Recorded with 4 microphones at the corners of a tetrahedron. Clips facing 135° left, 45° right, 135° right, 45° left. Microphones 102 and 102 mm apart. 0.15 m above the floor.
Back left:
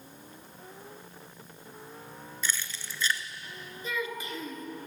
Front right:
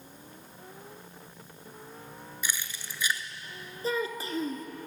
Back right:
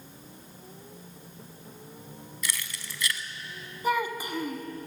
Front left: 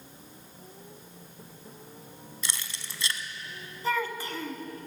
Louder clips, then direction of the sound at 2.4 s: Back left 1 dB, back right 2 dB; 15° left.